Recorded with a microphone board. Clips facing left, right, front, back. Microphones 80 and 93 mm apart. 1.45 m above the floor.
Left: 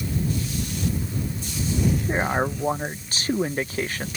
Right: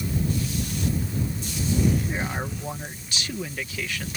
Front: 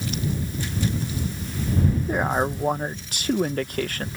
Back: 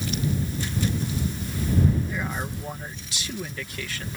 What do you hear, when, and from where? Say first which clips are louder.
2.1 s a man speaking: left 6 dB, front 8 dB; 40° left